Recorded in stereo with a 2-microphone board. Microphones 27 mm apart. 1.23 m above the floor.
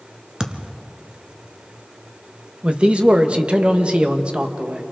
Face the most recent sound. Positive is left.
turn(degrees=-45)  # may be behind; listen again after turning